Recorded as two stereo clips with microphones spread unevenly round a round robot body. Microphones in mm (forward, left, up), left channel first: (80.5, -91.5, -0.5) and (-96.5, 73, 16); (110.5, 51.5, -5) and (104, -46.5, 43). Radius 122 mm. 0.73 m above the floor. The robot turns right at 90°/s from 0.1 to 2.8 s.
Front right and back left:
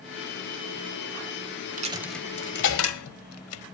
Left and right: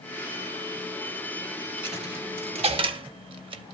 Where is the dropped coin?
165° right, 1.4 m; by 3.6 s 70° right, 1.4 m.